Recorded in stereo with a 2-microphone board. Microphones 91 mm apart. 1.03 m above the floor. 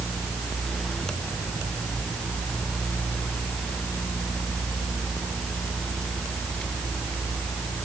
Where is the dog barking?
I don't hear a dog barking.